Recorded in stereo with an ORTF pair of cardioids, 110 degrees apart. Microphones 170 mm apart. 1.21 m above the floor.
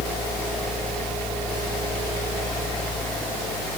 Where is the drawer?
I don't hear a drawer.